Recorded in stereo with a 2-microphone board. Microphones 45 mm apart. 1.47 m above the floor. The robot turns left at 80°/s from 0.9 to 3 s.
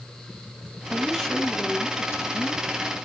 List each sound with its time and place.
0.9 s a woman speaking: 165° right, 4 m; by 2.6 s 60° left, 4 m